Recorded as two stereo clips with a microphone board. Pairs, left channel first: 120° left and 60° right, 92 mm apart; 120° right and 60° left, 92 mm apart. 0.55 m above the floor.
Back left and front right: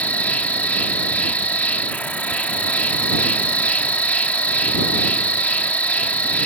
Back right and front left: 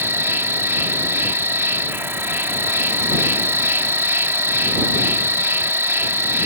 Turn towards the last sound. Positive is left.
turn(degrees=70)